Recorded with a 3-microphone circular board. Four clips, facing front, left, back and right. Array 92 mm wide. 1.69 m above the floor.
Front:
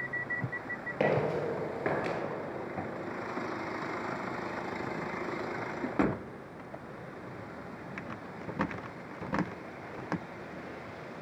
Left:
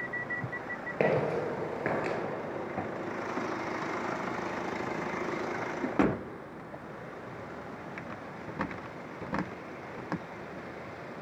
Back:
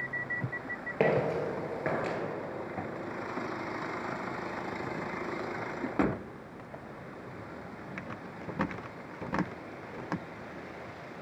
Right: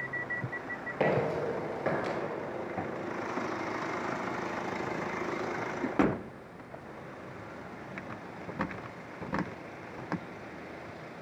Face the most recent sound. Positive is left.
turn(degrees=75)